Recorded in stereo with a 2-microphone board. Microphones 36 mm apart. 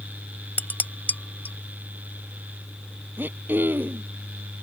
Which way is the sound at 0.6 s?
55° left (ahead or behind).